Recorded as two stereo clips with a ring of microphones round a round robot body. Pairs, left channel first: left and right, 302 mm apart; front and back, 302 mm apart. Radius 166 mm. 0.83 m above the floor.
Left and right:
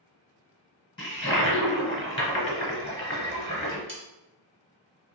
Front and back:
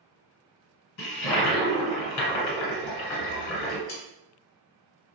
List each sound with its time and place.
1.0 s a toilet flushing: 20° left, 1.5 m
3.9 s sawing: 35° right, 1.1 m